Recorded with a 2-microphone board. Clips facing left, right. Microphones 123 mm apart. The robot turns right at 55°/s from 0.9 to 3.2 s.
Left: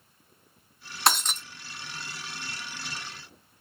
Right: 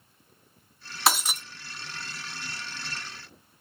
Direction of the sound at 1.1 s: Centre (ahead or behind).